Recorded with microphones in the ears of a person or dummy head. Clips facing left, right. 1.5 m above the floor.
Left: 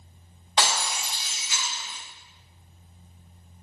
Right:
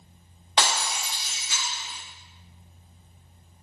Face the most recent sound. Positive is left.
turn(degrees=-45)  # may be behind; listen again after turning